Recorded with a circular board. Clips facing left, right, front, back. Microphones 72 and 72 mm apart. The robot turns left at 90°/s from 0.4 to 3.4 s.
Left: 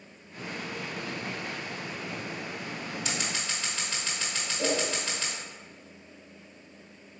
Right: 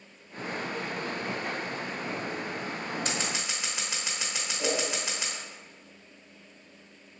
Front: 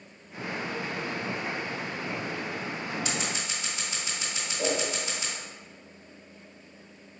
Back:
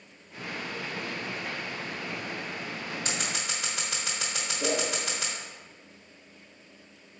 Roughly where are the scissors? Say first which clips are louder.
Right 1 dB, front 1 dB; behind right.